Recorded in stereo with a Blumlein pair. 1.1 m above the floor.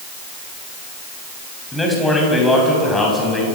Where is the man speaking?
10° left, 6.5 m; by 3.5 s 15° left, 7.5 m.